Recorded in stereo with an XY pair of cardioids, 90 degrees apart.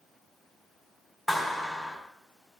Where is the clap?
5° left, 3.5 m.